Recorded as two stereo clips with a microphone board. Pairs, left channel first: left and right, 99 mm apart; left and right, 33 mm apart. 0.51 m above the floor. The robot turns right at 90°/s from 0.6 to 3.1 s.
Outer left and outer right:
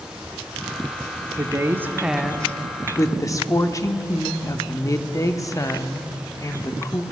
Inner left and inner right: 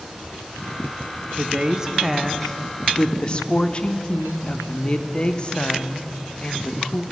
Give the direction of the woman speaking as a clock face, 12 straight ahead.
3 o'clock.